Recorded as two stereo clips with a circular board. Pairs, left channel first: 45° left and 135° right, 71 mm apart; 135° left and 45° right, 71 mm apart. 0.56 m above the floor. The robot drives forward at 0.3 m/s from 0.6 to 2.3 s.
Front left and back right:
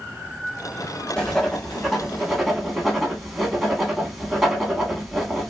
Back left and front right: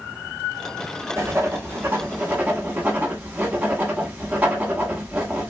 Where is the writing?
35° right, 1.0 m; by 5.5 s 70° right, 0.9 m.